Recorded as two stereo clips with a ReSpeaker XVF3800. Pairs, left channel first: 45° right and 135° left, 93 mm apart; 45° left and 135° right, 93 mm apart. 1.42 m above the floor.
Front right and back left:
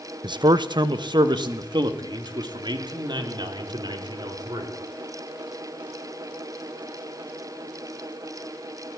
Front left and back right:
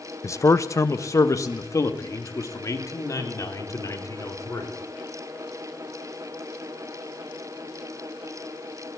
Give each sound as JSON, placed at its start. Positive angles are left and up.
{"t": 0.2, "sound": "a man speaking", "azimuth_deg": 100, "distance_m": 0.8}